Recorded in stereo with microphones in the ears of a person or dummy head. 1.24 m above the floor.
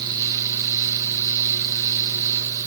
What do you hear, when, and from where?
0.0 s a fan: 25° right (ahead or behind), 2.5 m